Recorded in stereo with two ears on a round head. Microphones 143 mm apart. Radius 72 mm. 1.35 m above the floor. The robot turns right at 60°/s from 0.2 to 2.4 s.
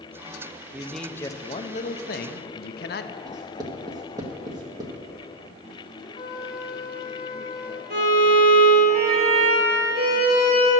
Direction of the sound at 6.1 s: 30° left (ahead or behind).